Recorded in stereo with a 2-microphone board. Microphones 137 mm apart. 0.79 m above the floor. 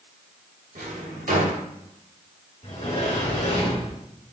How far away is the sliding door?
About 1.2 m.